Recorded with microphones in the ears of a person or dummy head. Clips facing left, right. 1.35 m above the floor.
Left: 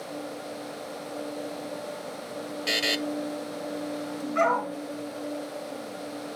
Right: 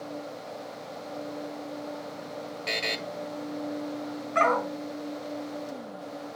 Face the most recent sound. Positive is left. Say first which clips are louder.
# even
turn(degrees=-75)  # may be behind; listen again after turning